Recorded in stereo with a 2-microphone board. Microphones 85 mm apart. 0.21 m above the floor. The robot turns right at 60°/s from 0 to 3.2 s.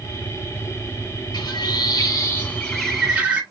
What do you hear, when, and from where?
1.3 s a bird: 80° left, 1.2 m; by 3.4 s 165° right, 1.2 m